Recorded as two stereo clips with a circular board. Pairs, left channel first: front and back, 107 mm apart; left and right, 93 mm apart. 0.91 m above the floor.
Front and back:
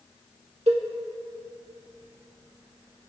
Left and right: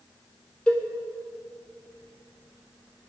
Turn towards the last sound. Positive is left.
turn(degrees=165)